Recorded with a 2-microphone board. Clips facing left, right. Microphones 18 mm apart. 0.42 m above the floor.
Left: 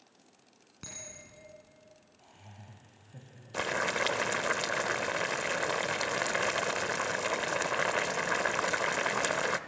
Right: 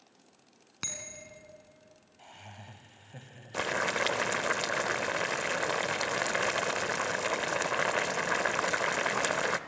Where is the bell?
50° right (ahead or behind), 3.5 m.